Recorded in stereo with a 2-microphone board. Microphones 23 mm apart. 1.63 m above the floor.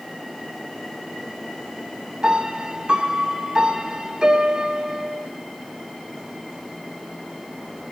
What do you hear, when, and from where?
2.2 s a piano: 40° right (ahead or behind), 1.9 m